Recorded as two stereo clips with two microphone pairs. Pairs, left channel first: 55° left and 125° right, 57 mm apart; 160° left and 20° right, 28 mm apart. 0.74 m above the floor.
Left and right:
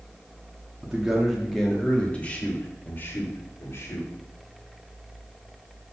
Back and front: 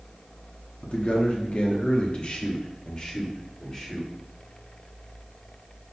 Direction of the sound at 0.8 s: 160° left.